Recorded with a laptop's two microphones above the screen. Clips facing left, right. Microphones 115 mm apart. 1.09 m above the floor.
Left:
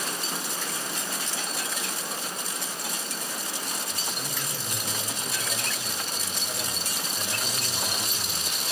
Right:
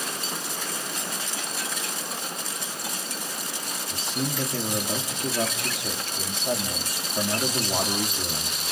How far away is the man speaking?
About 3 m.